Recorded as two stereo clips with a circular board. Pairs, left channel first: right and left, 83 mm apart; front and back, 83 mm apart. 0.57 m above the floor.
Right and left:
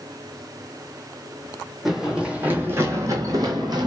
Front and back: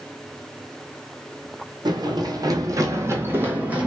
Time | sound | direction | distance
1.9 | running footsteps | 175° left | 1.0 m